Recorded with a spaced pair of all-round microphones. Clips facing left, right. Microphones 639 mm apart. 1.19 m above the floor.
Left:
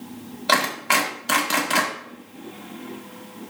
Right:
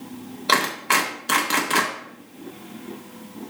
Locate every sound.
0.5 s a clap: 15° left (ahead or behind), 1.9 m